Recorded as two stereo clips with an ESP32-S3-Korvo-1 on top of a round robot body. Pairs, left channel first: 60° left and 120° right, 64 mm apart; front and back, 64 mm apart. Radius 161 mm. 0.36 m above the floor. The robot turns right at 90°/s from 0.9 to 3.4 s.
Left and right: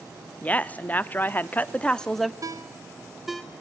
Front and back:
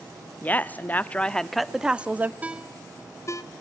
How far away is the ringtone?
About 1.3 m.